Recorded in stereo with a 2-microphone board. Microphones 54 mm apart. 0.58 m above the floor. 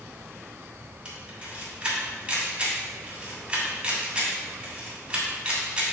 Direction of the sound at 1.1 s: 20° right (ahead or behind).